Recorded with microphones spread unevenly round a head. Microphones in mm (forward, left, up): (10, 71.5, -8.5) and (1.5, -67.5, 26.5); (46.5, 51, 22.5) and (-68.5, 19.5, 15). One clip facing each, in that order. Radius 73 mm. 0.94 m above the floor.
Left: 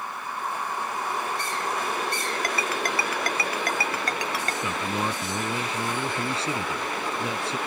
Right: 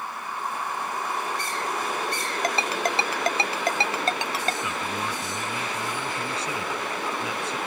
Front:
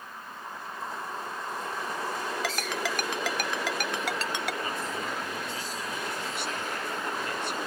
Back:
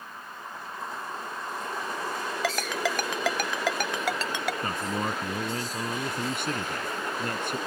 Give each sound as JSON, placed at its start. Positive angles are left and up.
{"t": 2.4, "sound": "a ringtone", "azimuth_deg": -160}
{"t": 4.6, "sound": "a man speaking", "azimuth_deg": 150}